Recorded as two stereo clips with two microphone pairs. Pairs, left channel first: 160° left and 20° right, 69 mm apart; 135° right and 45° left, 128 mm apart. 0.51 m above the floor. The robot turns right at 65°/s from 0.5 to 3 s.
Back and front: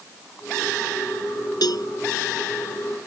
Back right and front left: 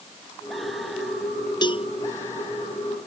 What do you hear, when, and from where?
1.6 s a cowbell: 170° left; by 1.9 s 175° right